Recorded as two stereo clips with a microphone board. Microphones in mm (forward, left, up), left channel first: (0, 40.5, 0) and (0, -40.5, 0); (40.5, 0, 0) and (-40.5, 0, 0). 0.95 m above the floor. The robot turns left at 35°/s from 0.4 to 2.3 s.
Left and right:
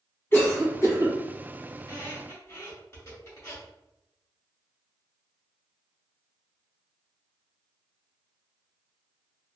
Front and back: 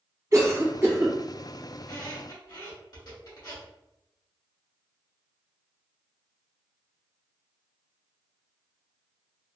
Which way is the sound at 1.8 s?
55° left.